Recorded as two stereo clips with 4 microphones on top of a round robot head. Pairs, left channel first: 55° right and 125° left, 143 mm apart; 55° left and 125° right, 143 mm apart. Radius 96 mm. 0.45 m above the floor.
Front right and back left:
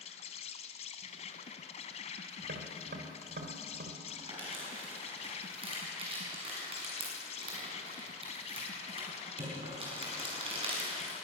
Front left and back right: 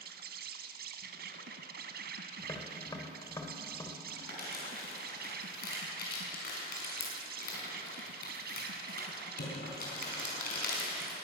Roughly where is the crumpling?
Left.